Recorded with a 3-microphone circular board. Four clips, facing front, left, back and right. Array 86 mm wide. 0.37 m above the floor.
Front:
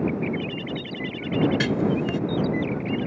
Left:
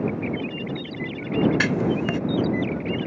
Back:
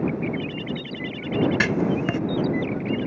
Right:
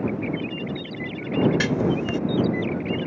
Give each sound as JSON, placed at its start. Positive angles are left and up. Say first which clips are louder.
{"t": 1.6, "sound": "writing", "louder": "even, back 1 dB", "azimuth_deg": 150}